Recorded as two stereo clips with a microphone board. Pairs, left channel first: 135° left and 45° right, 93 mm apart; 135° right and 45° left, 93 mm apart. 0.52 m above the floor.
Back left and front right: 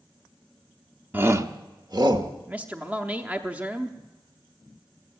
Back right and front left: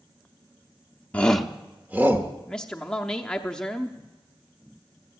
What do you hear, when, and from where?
1.1 s a shout: 85° right, 0.7 m; by 2.3 s 15° right, 1.3 m
2.5 s a man speaking: 75° right, 0.7 m